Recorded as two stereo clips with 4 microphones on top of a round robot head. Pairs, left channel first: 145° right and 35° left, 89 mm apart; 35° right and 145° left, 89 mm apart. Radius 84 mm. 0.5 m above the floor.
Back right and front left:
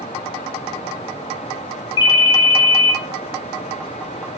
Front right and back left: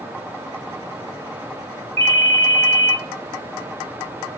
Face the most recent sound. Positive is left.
turn(degrees=-105)